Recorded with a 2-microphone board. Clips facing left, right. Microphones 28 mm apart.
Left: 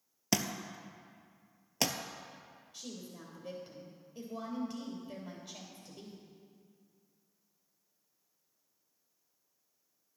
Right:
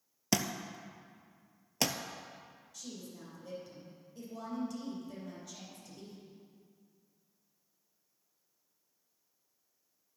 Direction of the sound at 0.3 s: Centre (ahead or behind).